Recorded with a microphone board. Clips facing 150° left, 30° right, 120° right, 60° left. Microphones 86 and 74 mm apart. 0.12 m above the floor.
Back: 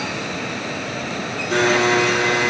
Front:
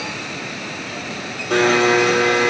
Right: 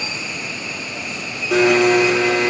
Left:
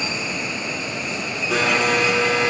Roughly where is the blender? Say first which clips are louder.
Front 2 dB, right 7 dB; ahead right.